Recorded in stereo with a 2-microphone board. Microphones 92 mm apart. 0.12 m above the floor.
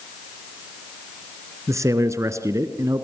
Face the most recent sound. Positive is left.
turn(degrees=-35)  # may be behind; listen again after turning